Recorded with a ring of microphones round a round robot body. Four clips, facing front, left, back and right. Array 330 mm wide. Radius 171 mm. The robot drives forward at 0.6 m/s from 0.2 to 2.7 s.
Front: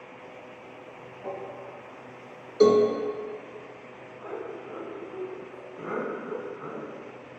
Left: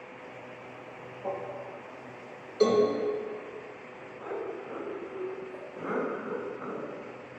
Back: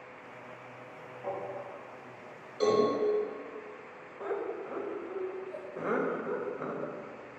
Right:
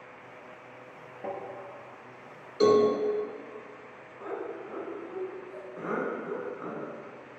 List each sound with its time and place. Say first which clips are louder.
1.2 s tapping: left 2 dB, front 1 dB; 80° right, 3 m; by 1.4 s 85° right, 3 m
2.6 s a cowbell: right 2 dB, front 7 dB; 15° right, 1.8 m
4.2 s laughter: even, back 2 dB; 175° right, 3 m